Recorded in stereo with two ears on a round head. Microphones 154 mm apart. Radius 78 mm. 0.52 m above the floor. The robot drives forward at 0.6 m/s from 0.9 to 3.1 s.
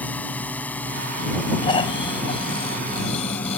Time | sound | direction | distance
0.0 | a drone | 10° left (ahead or behind) | ?
1.6 | snoring | 25° left (ahead or behind) | ?